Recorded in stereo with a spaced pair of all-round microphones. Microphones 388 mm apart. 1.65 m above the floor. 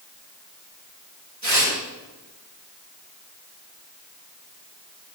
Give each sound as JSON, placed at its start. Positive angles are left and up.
{"t": 1.4, "sound": "tearing paper", "side_deg": -45, "distance_m": 8.0}